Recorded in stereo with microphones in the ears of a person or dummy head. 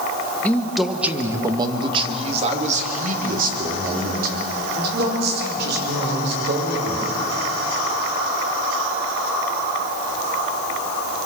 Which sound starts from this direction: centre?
A man speaking, at 0.4 s.